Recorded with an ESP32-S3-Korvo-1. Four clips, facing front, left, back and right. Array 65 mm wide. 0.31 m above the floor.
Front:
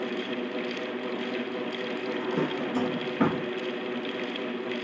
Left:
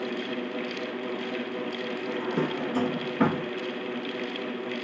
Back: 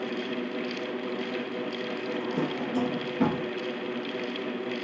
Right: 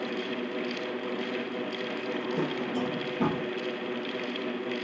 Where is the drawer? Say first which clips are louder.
Left 2 dB, front 1 dB; 60° left, 1.6 m.